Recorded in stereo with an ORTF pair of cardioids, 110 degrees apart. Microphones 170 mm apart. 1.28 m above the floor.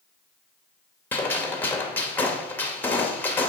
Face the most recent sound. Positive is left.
turn(degrees=10)